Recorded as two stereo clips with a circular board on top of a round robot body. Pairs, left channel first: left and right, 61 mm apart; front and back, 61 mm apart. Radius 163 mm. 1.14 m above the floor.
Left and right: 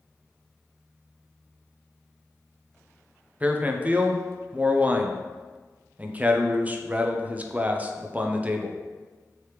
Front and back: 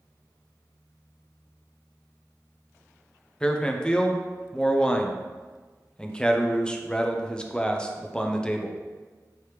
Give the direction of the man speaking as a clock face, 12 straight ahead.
2 o'clock.